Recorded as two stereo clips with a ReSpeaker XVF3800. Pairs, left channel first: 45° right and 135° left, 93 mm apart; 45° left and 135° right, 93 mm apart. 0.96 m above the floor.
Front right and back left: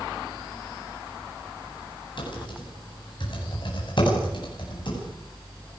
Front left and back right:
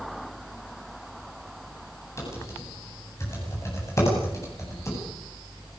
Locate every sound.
2.2 s typing on a keyboard: 15° right, 8.5 m